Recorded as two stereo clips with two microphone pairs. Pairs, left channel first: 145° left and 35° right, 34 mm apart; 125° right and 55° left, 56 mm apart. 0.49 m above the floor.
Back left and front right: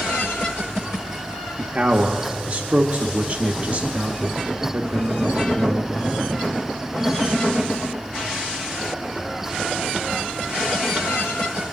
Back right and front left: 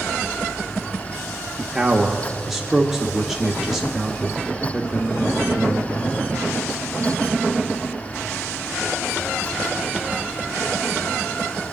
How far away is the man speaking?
About 0.9 m.